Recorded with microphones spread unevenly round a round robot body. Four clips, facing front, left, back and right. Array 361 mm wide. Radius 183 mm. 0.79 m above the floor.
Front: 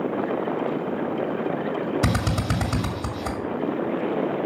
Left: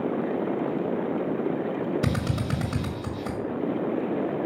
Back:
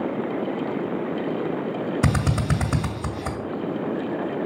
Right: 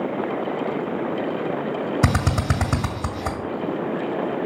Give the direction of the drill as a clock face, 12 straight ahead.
3 o'clock.